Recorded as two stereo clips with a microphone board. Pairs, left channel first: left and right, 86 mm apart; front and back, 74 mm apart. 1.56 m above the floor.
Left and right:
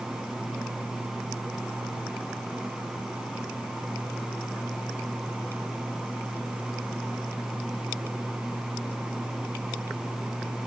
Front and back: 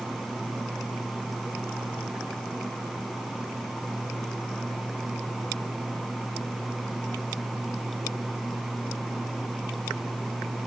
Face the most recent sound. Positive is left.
No sound to turn to.